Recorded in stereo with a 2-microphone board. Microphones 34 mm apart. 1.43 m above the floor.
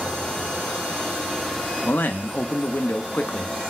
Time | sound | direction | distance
1.8 | a man speaking | 65° left (ahead or behind) | 0.6 m